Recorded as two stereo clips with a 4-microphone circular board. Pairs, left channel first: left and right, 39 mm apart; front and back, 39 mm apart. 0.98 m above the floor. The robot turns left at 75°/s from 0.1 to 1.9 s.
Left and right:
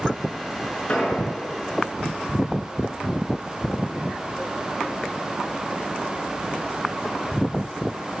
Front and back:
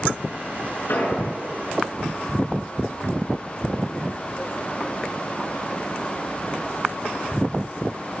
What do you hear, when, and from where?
0.9 s an explosion: 30° left, 5 m; by 1.2 s 5° left, 5 m